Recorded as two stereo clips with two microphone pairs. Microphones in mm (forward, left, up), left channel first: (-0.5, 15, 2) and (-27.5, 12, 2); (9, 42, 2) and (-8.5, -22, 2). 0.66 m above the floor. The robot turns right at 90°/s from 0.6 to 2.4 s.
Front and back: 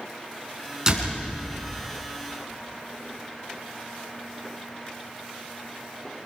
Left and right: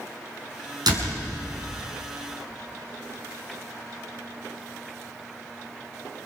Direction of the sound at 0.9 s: 105° right.